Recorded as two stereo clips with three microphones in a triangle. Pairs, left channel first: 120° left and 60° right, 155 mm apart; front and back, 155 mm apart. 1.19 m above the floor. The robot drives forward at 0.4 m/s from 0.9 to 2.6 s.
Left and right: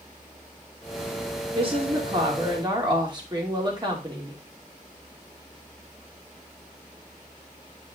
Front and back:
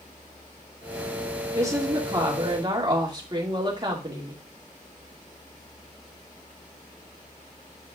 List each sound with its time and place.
1.6 s a woman speaking: 110° right, 2.5 m; by 4.4 s 120° right, 2.5 m